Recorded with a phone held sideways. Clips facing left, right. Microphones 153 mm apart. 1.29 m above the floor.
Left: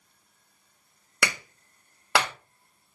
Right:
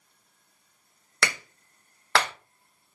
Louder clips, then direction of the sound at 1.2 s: Even; 10° left (ahead or behind).